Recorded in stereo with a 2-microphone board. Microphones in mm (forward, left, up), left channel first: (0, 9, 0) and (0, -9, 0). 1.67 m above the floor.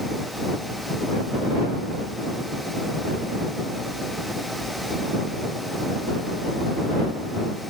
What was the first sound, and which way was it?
Only background noise.